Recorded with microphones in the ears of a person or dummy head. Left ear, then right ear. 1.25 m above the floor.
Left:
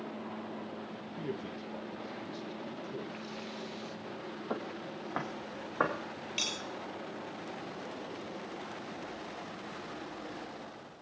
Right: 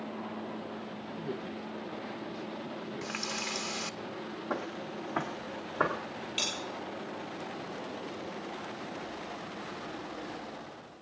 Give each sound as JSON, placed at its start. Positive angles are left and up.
{"t": 1.2, "sound": "a man speaking", "side_deg": 80, "distance_m": 1.2}
{"t": 3.0, "sound": "a running tap", "side_deg": -55, "distance_m": 0.8}
{"t": 4.5, "sound": "footsteps", "side_deg": 20, "distance_m": 1.8}
{"t": 6.4, "sound": "a bell", "side_deg": -5, "distance_m": 6.5}